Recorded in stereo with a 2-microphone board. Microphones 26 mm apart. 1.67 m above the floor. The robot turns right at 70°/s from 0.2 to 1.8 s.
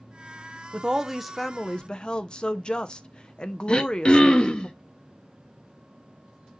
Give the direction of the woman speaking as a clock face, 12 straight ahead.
1 o'clock.